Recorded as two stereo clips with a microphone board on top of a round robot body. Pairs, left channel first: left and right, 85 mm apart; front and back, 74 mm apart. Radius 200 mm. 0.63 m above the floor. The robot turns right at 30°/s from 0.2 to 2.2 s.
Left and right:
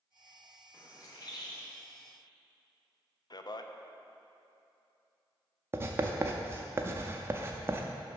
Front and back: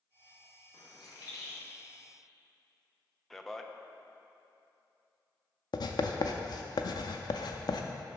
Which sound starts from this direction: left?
A man speaking, at 3.3 s.